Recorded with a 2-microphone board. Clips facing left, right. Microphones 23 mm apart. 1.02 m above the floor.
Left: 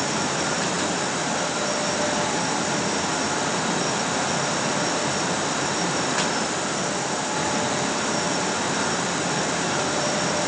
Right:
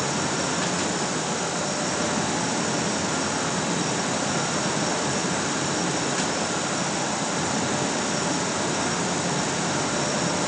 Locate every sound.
Only background noise.